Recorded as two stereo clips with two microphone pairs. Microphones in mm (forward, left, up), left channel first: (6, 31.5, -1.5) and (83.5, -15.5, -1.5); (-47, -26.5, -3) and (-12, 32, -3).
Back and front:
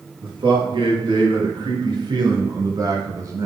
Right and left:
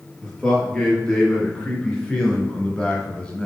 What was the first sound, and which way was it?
A man speaking, 45° right.